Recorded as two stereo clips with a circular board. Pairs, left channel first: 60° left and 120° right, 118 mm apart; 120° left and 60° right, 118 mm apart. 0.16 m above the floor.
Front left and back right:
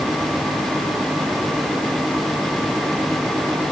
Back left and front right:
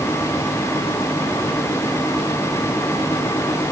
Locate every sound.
Only background noise.